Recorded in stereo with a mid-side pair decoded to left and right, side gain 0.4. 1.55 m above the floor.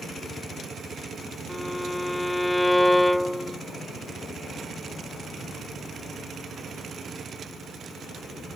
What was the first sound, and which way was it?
A violin, 10° left.